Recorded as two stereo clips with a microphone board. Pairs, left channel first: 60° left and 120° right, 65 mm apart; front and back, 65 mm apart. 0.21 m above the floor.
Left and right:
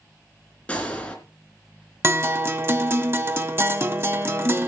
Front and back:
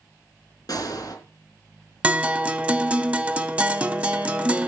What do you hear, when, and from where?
0.7 s a gunshot: 10° right, 3.5 m
2.0 s a guitar: 120° right, 0.7 m